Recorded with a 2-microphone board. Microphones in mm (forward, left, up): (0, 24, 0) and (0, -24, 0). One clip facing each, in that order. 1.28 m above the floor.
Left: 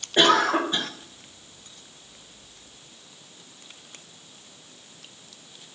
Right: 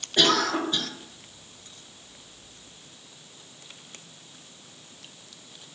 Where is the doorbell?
No doorbell in this recording.